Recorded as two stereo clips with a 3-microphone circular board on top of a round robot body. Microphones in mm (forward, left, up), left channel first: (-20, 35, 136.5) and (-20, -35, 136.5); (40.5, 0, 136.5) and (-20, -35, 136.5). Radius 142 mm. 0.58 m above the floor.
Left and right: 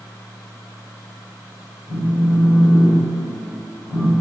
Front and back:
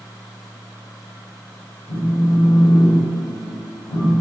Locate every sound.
1.9 s a phone buzzing: 15° right, 1.8 m